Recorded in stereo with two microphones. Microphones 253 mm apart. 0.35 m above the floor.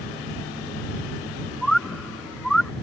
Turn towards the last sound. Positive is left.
turn(degrees=0)  # may be behind; listen again after turning